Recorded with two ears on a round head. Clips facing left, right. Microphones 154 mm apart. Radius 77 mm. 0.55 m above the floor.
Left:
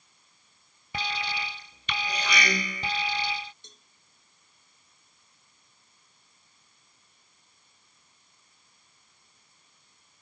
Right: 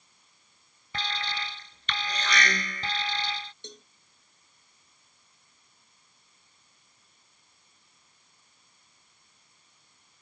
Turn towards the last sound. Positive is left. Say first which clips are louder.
# right 13 dB
turn(degrees=-55)  # may be behind; listen again after turning